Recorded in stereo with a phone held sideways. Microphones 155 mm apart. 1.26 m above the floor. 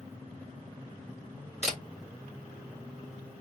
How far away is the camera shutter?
About 2 m.